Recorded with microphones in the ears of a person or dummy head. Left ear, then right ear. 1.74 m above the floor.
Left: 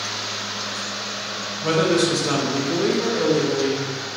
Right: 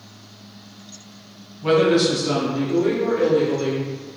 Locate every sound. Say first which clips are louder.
1.6 s a woman speaking: right 3 dB; 10° left (ahead or behind), 0.8 m; by 3.9 s 80° left, 1.3 m